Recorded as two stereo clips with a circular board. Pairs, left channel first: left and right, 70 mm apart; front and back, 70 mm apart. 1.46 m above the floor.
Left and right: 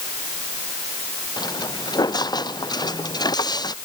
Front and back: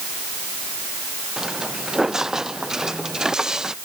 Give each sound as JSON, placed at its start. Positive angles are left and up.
{"t": 1.4, "sound": "footsteps", "azimuth_deg": 95}